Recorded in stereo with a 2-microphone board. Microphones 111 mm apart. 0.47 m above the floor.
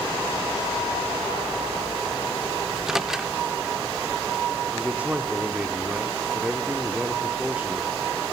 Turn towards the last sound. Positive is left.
turn(degrees=-15)  # may be behind; listen again after turning